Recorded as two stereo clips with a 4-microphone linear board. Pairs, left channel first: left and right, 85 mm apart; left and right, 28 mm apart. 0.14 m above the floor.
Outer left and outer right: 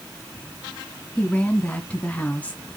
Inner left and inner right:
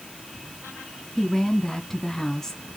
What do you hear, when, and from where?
1.2 s a woman speaking: 20° left (ahead or behind), 1.1 m